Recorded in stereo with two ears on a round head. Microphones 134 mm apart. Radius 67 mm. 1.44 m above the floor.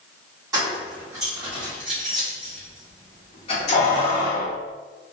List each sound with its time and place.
0.5 s keys jangling: 25° right (ahead or behind), 1.8 m; by 4.5 s 65° left (ahead or behind), 1.1 m